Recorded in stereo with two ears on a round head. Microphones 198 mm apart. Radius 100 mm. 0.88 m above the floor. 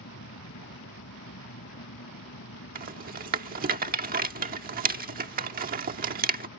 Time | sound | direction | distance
0.0 | an aircraft | 55° left (ahead or behind) | ?
2.8 | a rattle | 40° right (ahead or behind) | ?